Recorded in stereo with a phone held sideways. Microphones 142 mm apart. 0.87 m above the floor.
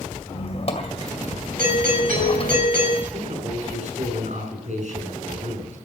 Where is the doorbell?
80° right, 7 m.